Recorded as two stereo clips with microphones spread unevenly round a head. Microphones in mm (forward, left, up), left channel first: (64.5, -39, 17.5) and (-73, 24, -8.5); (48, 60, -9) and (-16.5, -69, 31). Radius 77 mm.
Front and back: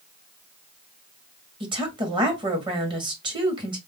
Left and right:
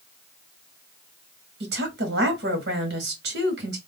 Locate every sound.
1.6 s a woman speaking: 145° right, 1.6 m